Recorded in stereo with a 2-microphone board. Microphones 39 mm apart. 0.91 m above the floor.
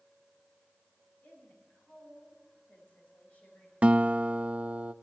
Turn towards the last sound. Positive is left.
turn(degrees=-40)  # may be behind; listen again after turning